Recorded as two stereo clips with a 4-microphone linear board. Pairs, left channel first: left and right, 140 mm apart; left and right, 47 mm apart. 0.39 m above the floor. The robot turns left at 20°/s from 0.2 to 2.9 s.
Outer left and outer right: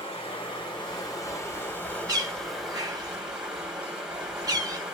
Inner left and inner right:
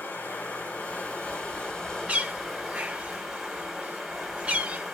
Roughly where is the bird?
Right.